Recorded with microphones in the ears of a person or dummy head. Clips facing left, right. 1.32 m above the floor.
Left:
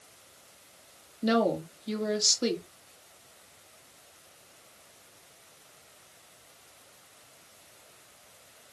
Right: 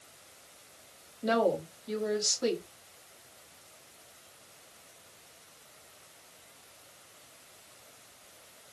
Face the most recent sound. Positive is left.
turn(degrees=35)  # may be behind; listen again after turning